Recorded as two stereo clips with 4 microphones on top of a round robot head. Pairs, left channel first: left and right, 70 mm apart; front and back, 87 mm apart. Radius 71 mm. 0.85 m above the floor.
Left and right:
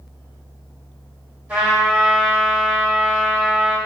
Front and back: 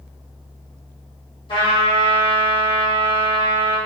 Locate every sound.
1.5 s a trumpet: 20° right, 1.6 m